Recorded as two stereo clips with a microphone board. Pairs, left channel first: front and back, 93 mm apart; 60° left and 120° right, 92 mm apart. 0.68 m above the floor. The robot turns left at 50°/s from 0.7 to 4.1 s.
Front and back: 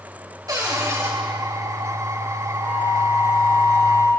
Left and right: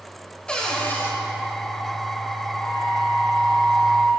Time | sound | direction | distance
0.5 | a cupboard door | 140° left | 3 m
2.6 | a flute | 45° left | 6 m